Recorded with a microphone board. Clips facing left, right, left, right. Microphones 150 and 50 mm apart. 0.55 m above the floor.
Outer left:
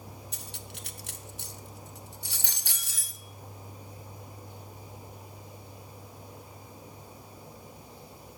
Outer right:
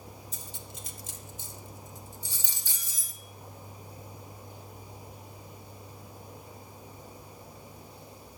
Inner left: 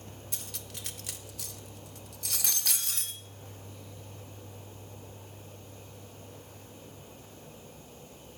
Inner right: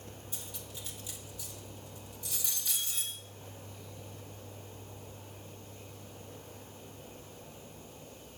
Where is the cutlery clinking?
60° left (ahead or behind), 0.6 m.